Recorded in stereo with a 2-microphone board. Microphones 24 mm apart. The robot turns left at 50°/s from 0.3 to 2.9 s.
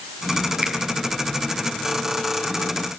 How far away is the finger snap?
About 4 m.